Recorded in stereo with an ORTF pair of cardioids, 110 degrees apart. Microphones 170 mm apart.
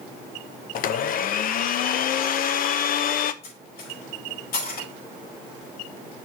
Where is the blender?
60° left, 0.8 m.